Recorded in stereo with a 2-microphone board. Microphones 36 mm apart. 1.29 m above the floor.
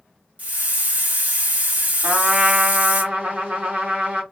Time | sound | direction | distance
0.4 | a hiss | 50° right (ahead or behind) | 0.9 m
2.0 | a trumpet | 50° right (ahead or behind) | 1.7 m